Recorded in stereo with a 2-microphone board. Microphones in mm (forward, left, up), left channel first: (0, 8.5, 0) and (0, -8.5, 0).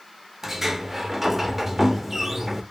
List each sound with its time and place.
0.4 s a sliding door: 15° right (ahead or behind), 0.5 m